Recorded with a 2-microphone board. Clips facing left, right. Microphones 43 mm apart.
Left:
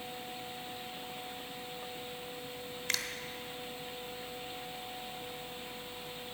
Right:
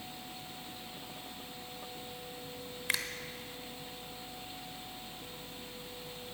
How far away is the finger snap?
About 0.9 m.